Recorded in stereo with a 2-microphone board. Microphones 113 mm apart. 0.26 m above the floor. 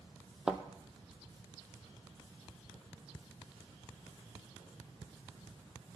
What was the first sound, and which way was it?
A thud, 5° right (ahead or behind).